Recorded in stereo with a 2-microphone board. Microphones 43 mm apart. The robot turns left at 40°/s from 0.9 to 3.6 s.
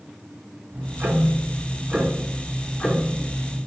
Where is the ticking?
120° right, 0.6 m; by 3.6 s 130° left, 0.6 m.